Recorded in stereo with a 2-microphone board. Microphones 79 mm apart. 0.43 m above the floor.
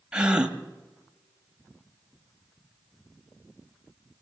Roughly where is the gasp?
Centre.